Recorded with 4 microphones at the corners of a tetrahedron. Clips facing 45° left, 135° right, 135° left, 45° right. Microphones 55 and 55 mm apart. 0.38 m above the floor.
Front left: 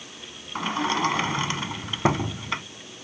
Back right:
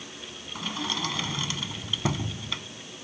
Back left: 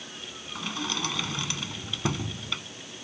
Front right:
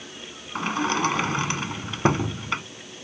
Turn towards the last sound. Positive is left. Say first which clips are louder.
# front left 7 dB, front right 9 dB
turn(degrees=0)